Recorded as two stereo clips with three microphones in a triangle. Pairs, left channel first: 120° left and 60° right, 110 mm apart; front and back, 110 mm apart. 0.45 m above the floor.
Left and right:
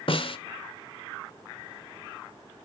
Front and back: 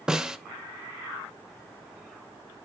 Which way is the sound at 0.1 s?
100° left.